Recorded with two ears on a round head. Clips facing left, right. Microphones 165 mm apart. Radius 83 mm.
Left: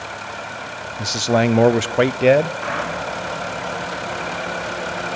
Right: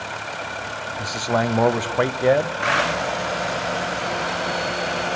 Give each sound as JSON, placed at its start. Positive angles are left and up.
{"t": 1.0, "sound": "a man speaking", "side_deg": 30, "distance_m": 0.8}